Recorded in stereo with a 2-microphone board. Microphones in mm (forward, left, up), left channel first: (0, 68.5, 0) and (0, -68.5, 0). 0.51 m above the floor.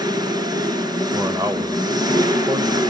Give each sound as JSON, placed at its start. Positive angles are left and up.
{"t": 0.0, "sound": "an engine running", "side_deg": -30, "distance_m": 3.0}
{"t": 1.1, "sound": "a man speaking", "side_deg": -20, "distance_m": 1.7}